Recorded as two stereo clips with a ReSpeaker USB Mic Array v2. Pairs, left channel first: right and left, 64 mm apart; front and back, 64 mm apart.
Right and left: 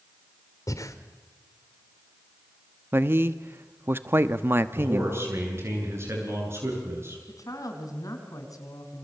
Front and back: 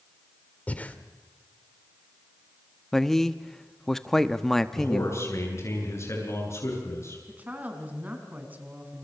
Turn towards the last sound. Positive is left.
turn(degrees=-115)